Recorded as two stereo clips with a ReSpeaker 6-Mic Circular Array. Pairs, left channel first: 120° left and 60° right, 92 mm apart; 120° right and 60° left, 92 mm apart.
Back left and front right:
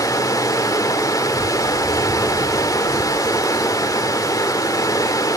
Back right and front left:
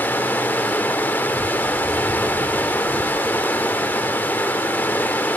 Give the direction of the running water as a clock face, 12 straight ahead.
6 o'clock.